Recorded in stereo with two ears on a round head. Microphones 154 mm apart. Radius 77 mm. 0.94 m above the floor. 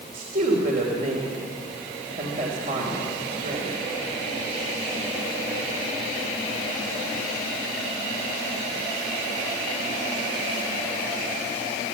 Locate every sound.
0.1 s a woman speaking: 45° right (ahead or behind), 3 m